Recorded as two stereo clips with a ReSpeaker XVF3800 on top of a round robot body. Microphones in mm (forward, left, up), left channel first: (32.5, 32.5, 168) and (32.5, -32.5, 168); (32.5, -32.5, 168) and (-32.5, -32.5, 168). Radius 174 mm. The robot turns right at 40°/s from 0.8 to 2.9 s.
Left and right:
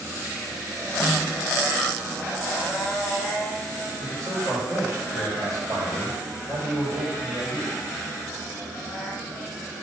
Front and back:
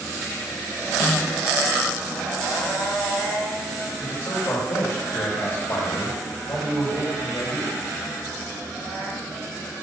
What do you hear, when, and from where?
1.0 s a snare drum: 40° left, 0.6 m; by 1.3 s 55° left, 0.6 m
4.0 s a man speaking: 45° right, 2.5 m